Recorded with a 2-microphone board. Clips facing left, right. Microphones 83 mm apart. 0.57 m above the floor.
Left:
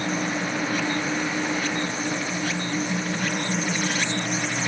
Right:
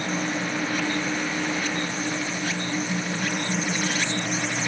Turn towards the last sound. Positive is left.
No sound to turn to.